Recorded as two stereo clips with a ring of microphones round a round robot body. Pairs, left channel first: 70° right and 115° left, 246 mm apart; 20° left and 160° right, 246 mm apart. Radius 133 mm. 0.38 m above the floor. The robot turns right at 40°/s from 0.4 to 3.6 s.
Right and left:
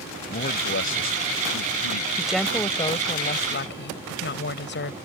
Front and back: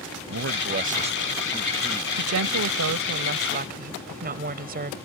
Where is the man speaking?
120° right; by 2.1 s 55° right.